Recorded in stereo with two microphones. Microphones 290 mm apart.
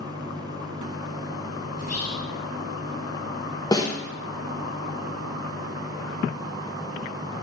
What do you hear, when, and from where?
1.8 s whispering: 65° left (ahead or behind), 1.2 m
3.7 s a snare drum: 15° left (ahead or behind), 0.9 m